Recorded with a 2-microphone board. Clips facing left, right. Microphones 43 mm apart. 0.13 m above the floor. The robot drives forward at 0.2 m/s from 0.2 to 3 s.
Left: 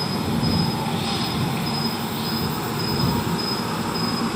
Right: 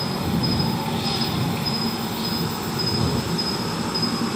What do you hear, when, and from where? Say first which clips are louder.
0.0 s an insect: left 1 dB; 15° left (ahead or behind), 1.7 m; by 4.4 s 25° left (ahead or behind), 1.1 m